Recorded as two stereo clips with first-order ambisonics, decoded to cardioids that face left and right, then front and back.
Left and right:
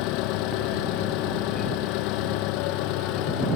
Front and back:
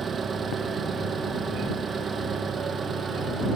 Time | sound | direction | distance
0.0 | an engine running | 110° left | ?